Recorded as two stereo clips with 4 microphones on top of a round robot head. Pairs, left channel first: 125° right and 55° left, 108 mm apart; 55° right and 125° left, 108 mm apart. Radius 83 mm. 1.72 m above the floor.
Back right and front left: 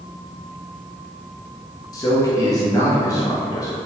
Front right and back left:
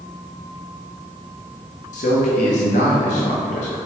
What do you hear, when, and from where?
1.9 s a man speaking: 70° right, 0.8 m